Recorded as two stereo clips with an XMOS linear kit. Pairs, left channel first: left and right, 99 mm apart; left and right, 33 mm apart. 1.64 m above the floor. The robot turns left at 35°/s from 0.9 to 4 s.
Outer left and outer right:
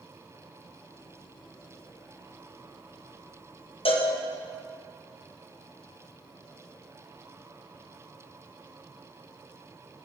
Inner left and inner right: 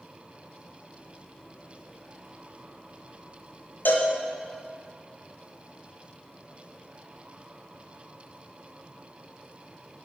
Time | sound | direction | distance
3.9 | a cowbell | 65° left (ahead or behind) | 0.6 m